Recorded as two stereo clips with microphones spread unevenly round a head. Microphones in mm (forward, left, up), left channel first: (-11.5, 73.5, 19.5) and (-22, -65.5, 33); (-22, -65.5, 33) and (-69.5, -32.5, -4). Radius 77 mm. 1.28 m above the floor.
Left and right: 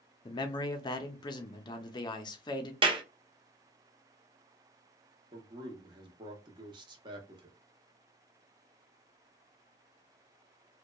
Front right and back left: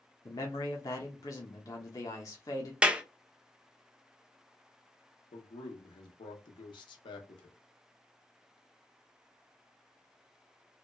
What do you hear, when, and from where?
0.2 s a man speaking: 35° left, 0.5 m
2.8 s a clap: 150° right, 0.6 m
5.3 s a man speaking: 35° right, 0.7 m